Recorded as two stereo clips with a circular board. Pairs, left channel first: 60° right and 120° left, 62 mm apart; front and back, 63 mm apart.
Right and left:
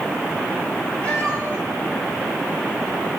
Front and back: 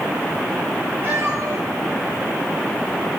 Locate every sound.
1.0 s a cat meowing: 130° right, 3.5 m; by 3.2 s 135° right, 1.5 m